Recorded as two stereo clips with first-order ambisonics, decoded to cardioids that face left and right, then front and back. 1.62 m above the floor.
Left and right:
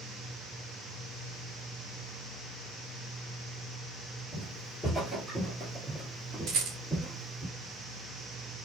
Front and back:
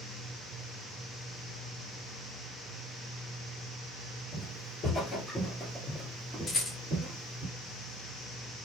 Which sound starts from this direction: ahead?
Footsteps, at 4.3 s.